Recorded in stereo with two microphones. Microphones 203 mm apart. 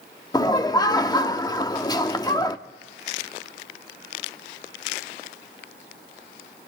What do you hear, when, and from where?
0.3 s laughter: 20° left (ahead or behind), 0.8 m